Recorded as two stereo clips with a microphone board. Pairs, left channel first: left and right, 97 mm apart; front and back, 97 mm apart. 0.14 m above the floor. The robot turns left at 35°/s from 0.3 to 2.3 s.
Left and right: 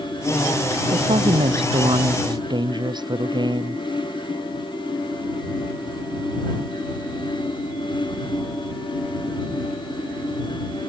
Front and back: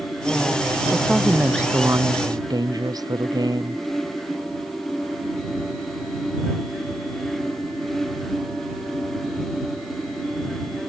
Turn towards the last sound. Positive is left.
turn(degrees=-130)